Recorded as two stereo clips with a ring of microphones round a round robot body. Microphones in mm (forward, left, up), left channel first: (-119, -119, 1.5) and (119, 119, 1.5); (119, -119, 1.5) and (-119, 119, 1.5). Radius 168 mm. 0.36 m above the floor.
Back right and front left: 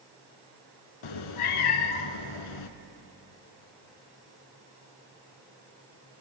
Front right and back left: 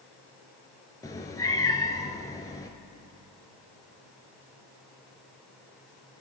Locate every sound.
1.0 s a cat meowing: 125° right, 0.5 m